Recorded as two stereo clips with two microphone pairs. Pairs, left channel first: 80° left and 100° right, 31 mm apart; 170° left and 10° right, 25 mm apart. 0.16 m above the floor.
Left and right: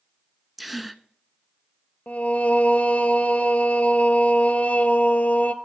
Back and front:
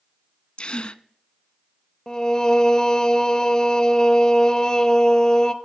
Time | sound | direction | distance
0.6 | a gasp | 175° left | 0.5 m
2.1 | singing | 105° left | 0.9 m